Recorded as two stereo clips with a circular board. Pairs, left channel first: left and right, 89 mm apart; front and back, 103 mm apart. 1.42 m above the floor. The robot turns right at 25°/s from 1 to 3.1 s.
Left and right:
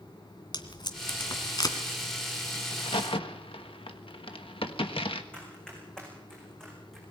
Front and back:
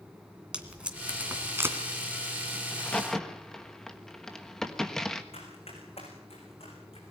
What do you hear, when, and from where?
0.5 s tape being pulled: 105° left, 2 m; by 1.8 s 125° left, 2 m
2.7 s a crack: 75° left, 1.4 m; by 5.2 s 85° left, 1.4 m
5.3 s running footsteps: 10° left, 7.5 m; by 7.0 s 5° left, 7 m